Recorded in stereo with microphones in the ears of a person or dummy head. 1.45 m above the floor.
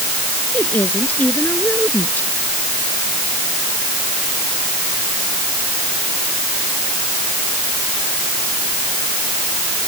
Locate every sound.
0.5 s a woman speaking: 10° left (ahead or behind)